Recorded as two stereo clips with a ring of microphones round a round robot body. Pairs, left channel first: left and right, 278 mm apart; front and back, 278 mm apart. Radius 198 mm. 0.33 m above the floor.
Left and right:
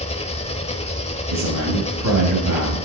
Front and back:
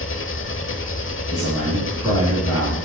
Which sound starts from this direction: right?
A man speaking, at 1.3 s.